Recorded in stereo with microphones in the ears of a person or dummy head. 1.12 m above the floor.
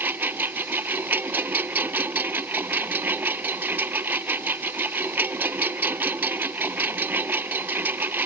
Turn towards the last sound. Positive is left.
turn(degrees=-10)  # may be behind; listen again after turning